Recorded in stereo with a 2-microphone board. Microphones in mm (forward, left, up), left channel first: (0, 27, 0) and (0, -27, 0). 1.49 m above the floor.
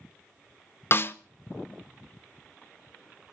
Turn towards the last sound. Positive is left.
turn(degrees=40)  # may be behind; listen again after turning